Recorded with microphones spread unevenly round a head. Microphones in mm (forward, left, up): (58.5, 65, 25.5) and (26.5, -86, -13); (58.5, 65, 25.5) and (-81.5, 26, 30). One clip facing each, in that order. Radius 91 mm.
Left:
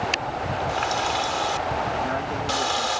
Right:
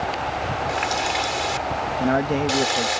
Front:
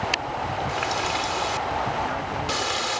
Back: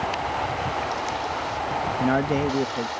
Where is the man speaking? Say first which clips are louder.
Right 6 dB, back 6 dB; 150° right.